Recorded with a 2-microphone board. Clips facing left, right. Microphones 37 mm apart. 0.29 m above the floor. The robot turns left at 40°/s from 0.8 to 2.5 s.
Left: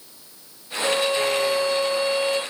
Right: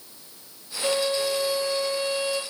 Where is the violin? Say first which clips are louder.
Left 3 dB; 160° right, 0.7 m; by 2.4 s 140° left, 0.7 m.